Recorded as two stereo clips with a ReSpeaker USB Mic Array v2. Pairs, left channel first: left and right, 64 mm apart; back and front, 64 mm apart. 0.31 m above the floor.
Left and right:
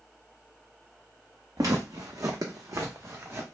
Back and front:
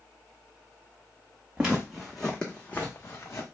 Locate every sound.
1.6 s footsteps: 70° right, 1.0 m; by 3.4 s 140° right, 1.0 m